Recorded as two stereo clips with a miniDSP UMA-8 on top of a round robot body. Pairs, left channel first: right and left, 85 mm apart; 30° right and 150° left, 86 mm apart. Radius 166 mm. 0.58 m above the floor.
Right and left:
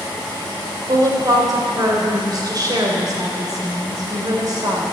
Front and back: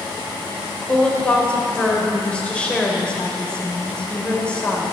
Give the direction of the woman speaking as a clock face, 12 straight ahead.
10 o'clock.